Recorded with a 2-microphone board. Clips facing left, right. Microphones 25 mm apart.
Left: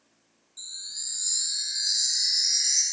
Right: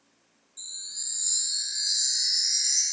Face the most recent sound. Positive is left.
turn(degrees=20)  # may be behind; listen again after turning